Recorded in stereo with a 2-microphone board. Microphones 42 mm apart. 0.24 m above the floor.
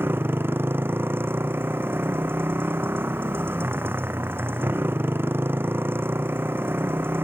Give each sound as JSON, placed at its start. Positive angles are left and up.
{"t": 0.0, "sound": "a motorcycle", "side_deg": -55}